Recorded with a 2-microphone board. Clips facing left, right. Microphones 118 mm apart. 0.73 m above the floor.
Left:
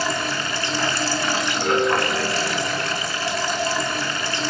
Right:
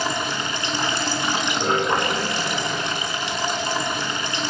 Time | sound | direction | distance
0.0 | running water | 20° right (ahead or behind) | 3.5 m